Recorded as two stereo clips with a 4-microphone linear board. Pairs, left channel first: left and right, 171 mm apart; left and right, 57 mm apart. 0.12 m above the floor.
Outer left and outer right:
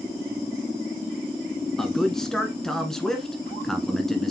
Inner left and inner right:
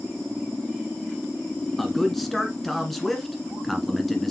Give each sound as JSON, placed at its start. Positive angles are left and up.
{"t": 1.8, "sound": "a man speaking", "side_deg": 5, "distance_m": 1.5}